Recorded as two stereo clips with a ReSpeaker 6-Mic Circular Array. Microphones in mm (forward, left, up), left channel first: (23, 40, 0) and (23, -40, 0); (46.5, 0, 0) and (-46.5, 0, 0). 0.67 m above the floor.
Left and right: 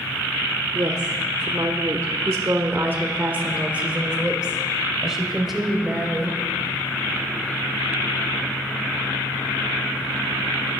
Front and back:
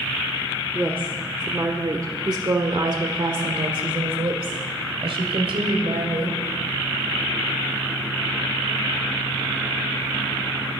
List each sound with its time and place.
0.8 s a woman speaking: 115° right, 1.7 m; by 6.4 s 175° left, 3 m